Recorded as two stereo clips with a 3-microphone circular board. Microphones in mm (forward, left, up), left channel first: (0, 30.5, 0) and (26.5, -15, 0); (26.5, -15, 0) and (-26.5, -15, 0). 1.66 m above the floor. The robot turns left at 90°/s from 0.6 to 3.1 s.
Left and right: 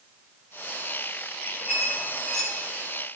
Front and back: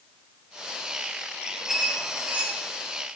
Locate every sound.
1.7 s a squeak: 110° right, 1.4 m; by 2.7 s 160° left, 1.4 m